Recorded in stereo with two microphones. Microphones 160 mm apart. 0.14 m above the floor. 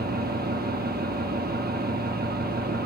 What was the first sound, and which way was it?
An engine running, 75° right (ahead or behind).